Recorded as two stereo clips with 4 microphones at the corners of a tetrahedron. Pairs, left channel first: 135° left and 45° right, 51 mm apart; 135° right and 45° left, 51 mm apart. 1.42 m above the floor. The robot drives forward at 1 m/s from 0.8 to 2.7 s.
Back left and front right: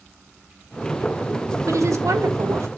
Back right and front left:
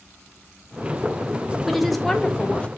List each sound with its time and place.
1.7 s a woman speaking: 40° right, 2 m; by 2.7 s 70° right, 1.5 m